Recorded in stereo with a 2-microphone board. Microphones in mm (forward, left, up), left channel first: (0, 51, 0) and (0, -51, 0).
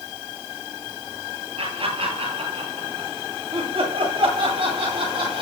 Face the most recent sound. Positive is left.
turn(degrees=-50)  # may be behind; listen again after turning